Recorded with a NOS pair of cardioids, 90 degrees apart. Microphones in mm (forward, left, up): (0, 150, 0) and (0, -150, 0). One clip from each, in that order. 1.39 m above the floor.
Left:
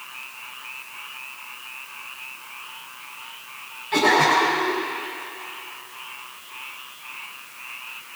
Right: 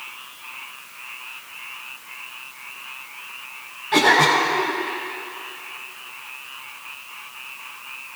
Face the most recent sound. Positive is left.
turn(degrees=-30)